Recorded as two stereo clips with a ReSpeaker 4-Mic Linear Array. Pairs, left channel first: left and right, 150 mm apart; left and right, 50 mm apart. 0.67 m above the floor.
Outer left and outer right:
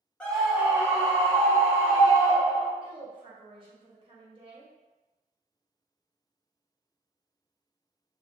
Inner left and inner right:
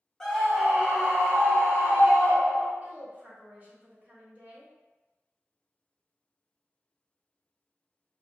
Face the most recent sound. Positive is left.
turn(degrees=-35)  # may be behind; listen again after turning